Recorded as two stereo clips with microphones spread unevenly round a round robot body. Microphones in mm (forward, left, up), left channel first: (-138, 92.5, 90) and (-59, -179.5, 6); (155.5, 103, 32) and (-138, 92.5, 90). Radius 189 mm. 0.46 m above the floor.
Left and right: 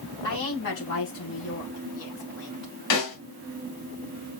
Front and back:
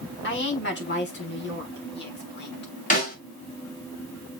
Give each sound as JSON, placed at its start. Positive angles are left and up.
{"t": 0.2, "sound": "a woman speaking", "azimuth_deg": 50, "distance_m": 5.0}
{"t": 2.9, "sound": "a snare drum", "azimuth_deg": 65, "distance_m": 3.5}